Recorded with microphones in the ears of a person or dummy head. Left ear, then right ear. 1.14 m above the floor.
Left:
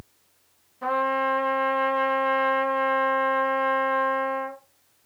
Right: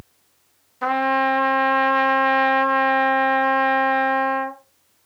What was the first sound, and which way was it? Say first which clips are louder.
A trumpet: right 4 dB; 40° right (ahead or behind).